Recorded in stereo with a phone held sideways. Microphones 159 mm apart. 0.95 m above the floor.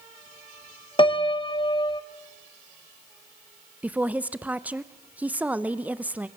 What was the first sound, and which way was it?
A piano, 30° left (ahead or behind).